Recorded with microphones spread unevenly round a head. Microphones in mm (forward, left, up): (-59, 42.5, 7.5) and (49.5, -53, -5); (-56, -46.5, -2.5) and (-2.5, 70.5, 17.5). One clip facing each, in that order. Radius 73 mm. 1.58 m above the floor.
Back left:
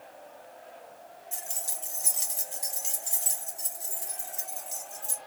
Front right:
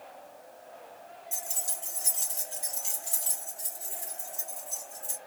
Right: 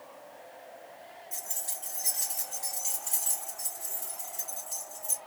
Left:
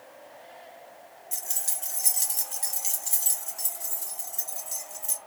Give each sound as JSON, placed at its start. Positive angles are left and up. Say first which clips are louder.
{"t": 1.3, "sound": "keys jangling", "louder": "even, left 1 dB", "azimuth_deg": 45, "distance_m": 0.6}